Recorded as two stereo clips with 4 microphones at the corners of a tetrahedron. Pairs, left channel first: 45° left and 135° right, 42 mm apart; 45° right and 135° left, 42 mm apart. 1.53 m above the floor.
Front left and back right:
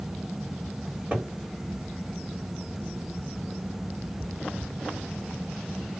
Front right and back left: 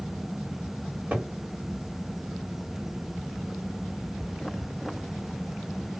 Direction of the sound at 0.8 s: 175° left.